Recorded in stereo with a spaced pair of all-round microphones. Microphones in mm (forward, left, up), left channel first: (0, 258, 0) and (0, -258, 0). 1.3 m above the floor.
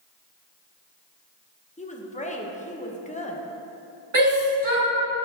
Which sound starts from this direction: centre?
A woman speaking, at 1.8 s.